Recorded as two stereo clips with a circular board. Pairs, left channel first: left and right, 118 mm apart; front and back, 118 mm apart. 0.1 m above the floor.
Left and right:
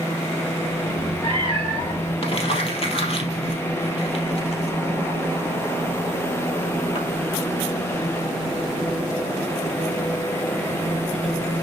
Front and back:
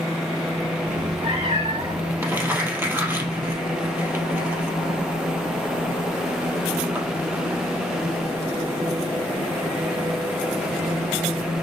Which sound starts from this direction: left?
Crumpling, at 2.2 s.